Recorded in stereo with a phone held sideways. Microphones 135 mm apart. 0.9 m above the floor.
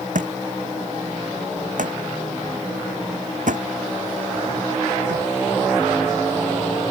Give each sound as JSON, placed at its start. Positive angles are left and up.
{"t": 0.1, "sound": "a thud", "side_deg": -75}